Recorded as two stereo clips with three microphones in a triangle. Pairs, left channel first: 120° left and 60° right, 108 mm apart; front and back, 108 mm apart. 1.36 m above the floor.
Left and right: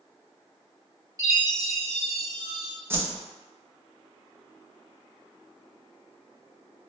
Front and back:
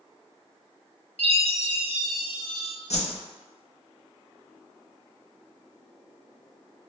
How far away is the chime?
About 1.6 m.